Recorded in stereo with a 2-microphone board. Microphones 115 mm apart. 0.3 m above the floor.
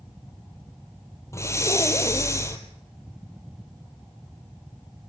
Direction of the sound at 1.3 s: 25° left (ahead or behind).